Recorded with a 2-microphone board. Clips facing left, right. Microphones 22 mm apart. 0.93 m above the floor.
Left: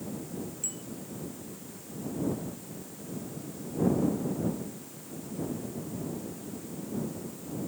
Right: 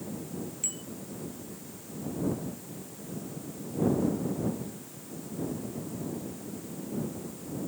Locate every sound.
0.6 s a bicycle bell: 20° right (ahead or behind)